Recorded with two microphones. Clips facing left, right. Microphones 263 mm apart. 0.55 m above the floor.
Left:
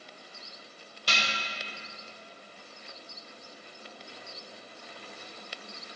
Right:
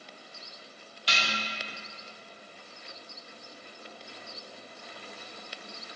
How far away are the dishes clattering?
About 1.6 m.